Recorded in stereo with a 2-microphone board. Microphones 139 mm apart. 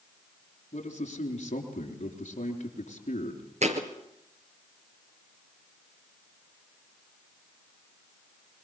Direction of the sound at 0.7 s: 55° left (ahead or behind).